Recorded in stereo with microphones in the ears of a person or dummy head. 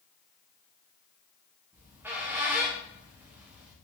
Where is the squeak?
10° right (ahead or behind), 0.6 m.